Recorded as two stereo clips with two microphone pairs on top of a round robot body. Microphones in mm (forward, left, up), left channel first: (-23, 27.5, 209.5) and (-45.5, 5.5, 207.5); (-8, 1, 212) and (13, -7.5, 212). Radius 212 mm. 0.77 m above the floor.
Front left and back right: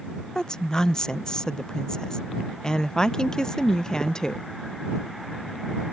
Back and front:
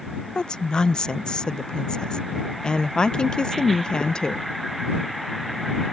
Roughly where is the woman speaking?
Behind left.